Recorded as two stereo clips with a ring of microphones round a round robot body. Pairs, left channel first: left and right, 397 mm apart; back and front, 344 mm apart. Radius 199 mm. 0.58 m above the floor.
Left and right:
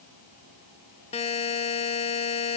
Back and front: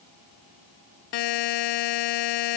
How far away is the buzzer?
About 0.8 m.